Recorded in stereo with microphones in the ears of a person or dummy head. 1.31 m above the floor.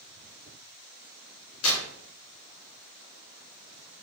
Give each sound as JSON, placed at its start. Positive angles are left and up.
{"t": 1.6, "sound": "tearing paper", "side_deg": 75, "distance_m": 1.2}